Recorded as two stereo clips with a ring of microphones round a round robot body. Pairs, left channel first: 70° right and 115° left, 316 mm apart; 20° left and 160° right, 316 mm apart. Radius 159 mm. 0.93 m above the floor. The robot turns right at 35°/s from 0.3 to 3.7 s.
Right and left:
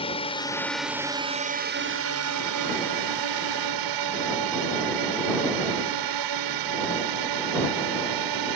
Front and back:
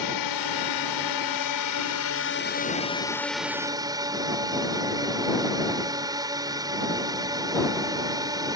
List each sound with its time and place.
0.0 s a drone: 5° left; by 8.6 s 125° left